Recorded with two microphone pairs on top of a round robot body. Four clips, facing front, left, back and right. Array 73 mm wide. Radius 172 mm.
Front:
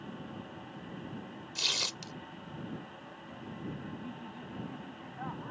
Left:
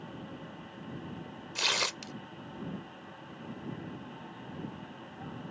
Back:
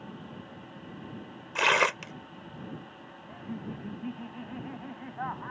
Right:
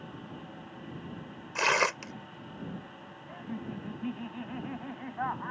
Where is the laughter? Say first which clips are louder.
Right 4 dB, back 4 dB; 125° right.